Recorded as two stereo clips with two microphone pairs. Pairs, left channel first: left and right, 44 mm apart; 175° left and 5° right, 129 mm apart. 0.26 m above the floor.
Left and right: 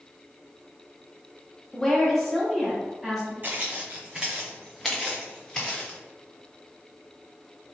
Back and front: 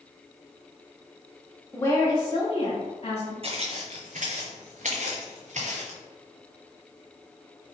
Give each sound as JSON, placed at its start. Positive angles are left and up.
{"t": 1.7, "sound": "a woman speaking", "azimuth_deg": 145, "distance_m": 1.0}
{"t": 3.4, "sound": "footsteps", "azimuth_deg": -40, "distance_m": 0.8}